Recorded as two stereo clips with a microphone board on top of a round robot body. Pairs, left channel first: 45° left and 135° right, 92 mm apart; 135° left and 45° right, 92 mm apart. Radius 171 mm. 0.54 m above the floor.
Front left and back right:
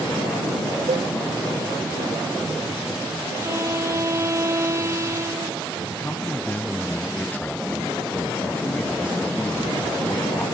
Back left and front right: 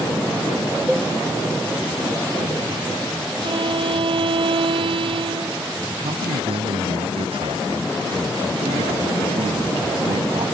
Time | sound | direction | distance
0.9 | a cowbell | 130° right | ?
3.4 | a violin | 75° right | ?
5.9 | a man speaking | 25° right | ?